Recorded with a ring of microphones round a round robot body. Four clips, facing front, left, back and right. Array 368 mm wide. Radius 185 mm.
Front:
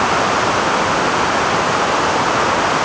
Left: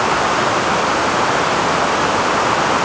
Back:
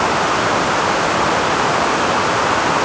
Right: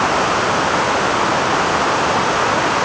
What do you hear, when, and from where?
Only background noise.